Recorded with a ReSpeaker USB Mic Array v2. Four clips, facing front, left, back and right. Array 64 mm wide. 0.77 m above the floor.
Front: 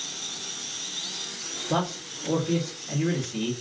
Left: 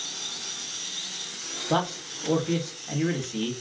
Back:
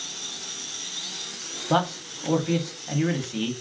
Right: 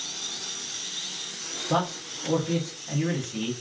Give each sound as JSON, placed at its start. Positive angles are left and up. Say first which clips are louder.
{"t": 1.7, "sound": "a man speaking", "louder": "even, back 4 dB", "azimuth_deg": 170, "distance_m": 1.0}